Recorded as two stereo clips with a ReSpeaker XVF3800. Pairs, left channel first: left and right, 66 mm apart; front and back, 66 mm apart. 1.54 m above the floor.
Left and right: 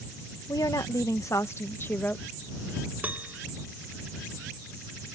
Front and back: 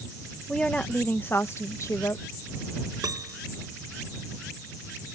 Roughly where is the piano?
Behind right.